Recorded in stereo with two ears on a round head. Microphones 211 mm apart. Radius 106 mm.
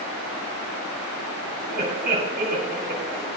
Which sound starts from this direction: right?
Laughter, at 1.7 s.